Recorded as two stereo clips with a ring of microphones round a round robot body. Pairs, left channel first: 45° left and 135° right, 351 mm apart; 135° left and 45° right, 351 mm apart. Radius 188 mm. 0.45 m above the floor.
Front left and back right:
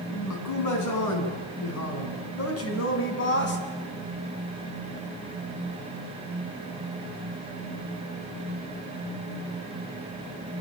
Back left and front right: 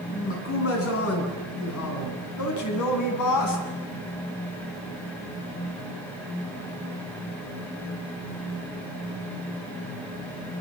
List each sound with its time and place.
0.1 s a man speaking: 80° left, 7.5 m; by 3.6 s 105° left, 5.5 m